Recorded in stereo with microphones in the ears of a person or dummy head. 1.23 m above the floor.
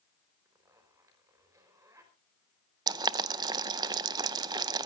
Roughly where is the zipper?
Right.